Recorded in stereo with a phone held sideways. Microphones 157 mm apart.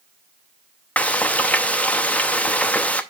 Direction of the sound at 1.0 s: 10° left (ahead or behind).